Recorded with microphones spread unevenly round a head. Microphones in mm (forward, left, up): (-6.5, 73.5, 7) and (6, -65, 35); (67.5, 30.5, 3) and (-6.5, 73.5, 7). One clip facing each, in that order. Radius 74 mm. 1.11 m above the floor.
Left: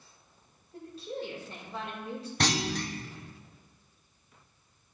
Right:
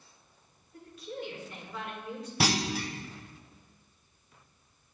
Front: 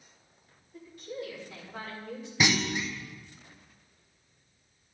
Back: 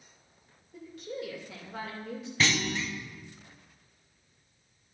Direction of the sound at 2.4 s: 15° left.